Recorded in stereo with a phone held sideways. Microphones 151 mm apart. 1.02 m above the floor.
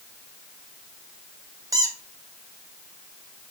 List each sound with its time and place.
1.7 s a squeak: 25° right (ahead or behind), 0.7 m